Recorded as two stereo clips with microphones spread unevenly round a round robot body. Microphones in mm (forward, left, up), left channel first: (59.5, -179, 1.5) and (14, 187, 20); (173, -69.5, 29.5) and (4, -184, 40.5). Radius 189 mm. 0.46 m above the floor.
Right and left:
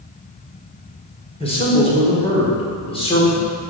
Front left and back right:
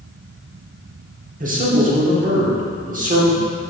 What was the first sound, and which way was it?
A man speaking, 145° right.